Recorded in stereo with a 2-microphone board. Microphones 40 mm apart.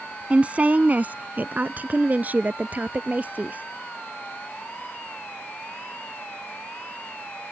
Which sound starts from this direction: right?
A woman speaking, at 0.3 s.